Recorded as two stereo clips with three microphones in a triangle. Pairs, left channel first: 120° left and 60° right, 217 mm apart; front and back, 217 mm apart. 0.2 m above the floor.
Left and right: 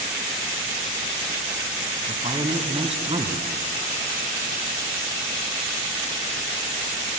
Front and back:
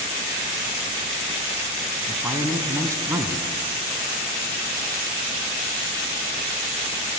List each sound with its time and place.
2.1 s a man speaking: 110° right, 2 m